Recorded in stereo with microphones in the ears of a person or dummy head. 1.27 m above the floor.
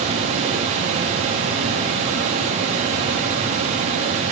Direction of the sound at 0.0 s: 30° right (ahead or behind).